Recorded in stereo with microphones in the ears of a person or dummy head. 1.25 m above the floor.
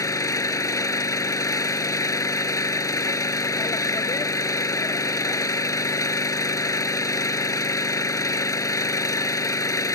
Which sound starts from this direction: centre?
An engine running, at 0.0 s.